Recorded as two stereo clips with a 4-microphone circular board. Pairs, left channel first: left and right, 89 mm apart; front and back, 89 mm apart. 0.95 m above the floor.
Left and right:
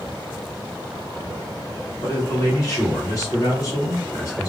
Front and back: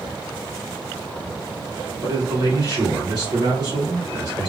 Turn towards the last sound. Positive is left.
turn(degrees=140)